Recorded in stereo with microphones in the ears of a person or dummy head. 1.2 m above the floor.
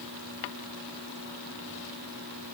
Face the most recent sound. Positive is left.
No sound to turn to.